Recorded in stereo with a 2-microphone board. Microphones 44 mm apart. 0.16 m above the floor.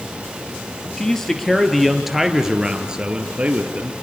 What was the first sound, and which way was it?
A man speaking, 10° left (ahead or behind).